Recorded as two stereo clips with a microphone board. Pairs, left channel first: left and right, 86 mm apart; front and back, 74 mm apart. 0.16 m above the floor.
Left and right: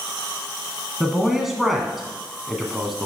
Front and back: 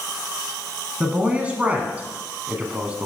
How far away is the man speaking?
About 1.1 m.